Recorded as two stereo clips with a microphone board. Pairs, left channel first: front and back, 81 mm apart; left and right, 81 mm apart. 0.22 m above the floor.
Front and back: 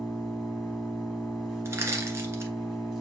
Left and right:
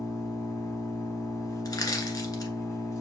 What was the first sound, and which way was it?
An engine running, 95° left.